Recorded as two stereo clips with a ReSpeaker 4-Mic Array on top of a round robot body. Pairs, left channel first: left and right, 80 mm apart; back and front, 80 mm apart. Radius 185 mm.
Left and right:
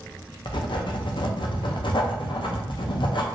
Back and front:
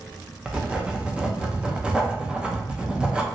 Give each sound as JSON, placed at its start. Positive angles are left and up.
{"t": 0.5, "sound": "writing", "azimuth_deg": 75, "distance_m": 0.6}